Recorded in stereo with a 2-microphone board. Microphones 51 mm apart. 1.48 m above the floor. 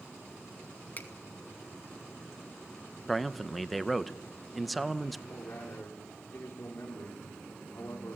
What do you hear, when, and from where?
1.0 s a finger snap: 40° left (ahead or behind), 1.8 m
3.1 s a man speaking: centre (ahead or behind), 0.8 m
5.3 s a man speaking: 50° left (ahead or behind), 3.5 m